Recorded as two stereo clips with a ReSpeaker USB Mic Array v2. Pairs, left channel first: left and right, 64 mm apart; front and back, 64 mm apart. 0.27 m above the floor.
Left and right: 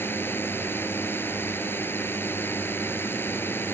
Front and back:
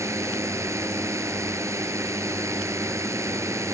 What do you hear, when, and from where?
0.0 s a drone: 145° left